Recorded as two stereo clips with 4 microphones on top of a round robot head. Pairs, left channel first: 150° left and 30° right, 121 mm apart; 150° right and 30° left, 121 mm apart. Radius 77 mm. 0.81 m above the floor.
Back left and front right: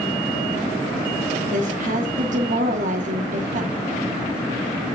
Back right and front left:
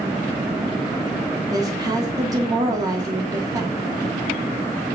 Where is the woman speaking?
30° right, 1.5 m.